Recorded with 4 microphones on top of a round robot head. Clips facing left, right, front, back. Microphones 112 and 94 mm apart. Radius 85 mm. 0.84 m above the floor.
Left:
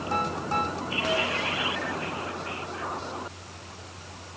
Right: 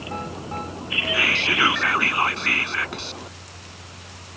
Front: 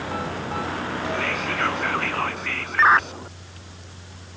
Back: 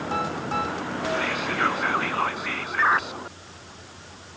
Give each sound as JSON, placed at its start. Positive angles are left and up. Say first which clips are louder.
{"t": 1.1, "sound": "whispering", "louder": "right 4 dB, back 1 dB", "azimuth_deg": -100}